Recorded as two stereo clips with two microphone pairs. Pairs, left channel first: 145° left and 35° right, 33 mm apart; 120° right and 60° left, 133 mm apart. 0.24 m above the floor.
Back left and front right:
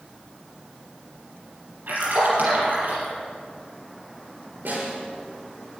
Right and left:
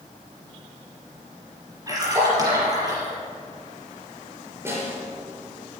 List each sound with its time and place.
1.9 s a splash: 5° right, 5 m
4.7 s a snare drum: 10° right, 5.5 m